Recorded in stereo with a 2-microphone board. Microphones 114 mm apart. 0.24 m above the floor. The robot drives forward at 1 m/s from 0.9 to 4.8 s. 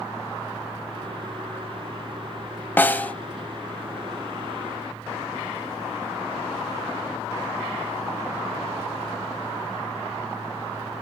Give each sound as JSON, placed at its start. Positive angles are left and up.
{"t": 2.8, "sound": "a snare drum", "side_deg": 15, "distance_m": 0.7}